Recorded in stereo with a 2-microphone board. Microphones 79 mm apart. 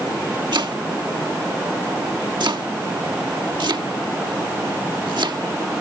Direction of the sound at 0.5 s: 70° right (ahead or behind).